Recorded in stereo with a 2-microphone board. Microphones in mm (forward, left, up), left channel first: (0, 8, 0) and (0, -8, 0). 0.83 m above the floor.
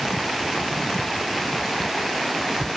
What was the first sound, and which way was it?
Only background noise.